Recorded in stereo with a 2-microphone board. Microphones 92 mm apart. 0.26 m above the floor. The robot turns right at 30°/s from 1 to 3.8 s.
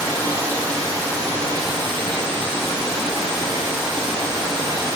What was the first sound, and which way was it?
Running water, 145° right.